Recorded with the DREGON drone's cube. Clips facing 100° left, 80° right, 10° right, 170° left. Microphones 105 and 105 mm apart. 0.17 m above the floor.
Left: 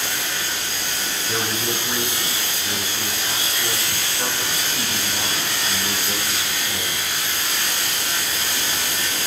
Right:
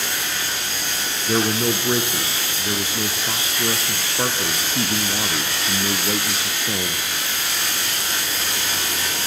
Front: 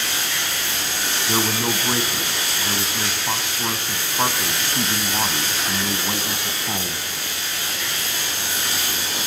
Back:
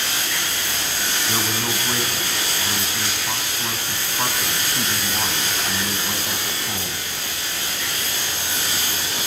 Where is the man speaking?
65° right, 1.7 m.